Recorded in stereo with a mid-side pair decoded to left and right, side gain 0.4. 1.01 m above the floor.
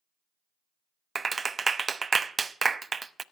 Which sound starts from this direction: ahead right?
A clap, at 1.1 s.